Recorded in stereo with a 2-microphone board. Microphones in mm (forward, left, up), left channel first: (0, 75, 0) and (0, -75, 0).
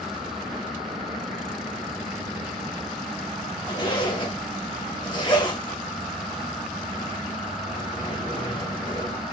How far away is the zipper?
About 1.4 m.